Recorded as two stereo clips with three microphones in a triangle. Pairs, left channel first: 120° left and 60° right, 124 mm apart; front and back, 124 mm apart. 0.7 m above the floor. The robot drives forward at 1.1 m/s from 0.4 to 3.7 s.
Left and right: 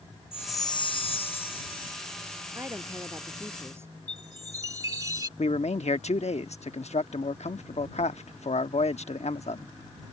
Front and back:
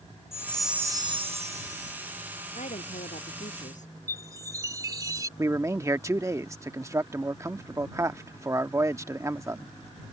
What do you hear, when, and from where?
0.3 s a chime: 60° left; by 2.1 s 165° left
2.5 s a woman speaking: 10° left
4.1 s a chime: 120° right
5.4 s a man speaking: 115° left